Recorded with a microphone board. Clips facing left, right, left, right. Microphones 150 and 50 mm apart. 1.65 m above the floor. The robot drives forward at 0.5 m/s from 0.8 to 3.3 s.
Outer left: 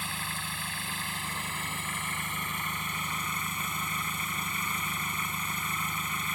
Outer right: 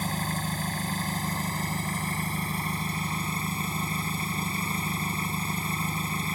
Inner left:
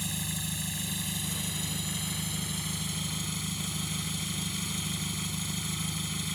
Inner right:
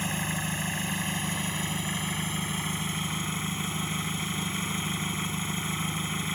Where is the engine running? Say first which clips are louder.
Outer right 8 dB, inner right 6 dB; 40° right (ahead or behind); by 6.3 s 35° right (ahead or behind).